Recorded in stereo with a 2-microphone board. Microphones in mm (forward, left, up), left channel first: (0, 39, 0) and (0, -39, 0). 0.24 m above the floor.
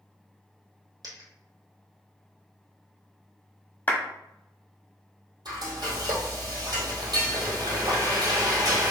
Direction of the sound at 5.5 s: 65° right (ahead or behind).